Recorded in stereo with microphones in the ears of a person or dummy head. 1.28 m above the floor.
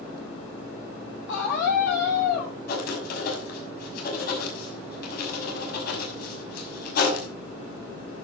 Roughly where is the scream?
Left.